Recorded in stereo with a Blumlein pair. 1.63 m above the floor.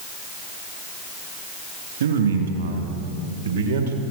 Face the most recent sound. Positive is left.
turn(degrees=-70)